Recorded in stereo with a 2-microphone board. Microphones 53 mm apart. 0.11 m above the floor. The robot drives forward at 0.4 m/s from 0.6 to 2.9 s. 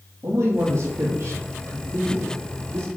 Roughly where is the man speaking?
Right.